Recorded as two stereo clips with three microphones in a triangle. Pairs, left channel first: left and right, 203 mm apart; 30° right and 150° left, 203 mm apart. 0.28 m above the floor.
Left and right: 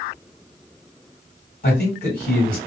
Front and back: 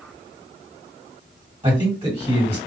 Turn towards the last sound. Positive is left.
turn(degrees=95)